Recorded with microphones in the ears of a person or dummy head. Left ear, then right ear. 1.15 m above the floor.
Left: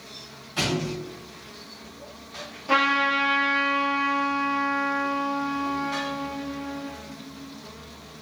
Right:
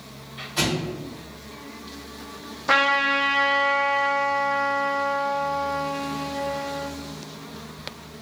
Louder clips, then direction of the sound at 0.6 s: Right 1 dB; 5° left (ahead or behind).